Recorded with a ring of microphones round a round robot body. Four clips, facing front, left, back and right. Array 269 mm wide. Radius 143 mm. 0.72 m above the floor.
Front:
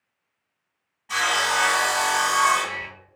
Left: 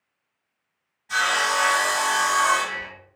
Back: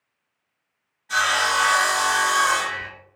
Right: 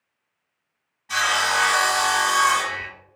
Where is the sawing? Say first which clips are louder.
Right 1 dB, back 2 dB; 30° right, 1.1 m.